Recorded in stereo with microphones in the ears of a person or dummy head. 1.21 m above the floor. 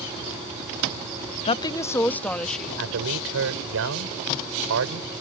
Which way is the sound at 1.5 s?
30° left (ahead or behind).